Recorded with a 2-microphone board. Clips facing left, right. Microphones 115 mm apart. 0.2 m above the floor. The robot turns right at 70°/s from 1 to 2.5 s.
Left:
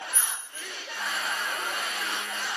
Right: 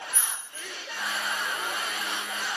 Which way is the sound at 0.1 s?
15° left (ahead or behind).